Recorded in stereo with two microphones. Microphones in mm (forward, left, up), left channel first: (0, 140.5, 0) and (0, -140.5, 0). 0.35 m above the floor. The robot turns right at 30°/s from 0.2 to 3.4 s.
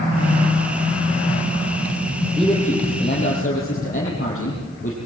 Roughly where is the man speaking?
Ahead.